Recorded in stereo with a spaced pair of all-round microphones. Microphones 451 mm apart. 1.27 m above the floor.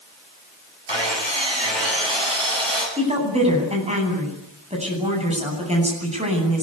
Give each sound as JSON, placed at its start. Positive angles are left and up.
{"t": 0.9, "sound": "sawing", "side_deg": -70, "distance_m": 9.0}
{"t": 3.0, "sound": "a woman speaking", "side_deg": -15, "distance_m": 10.0}